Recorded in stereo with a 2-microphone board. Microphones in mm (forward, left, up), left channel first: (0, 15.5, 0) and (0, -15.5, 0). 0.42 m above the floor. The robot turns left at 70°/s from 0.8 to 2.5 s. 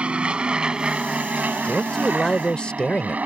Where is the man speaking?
175° right; by 3.2 s 125° left.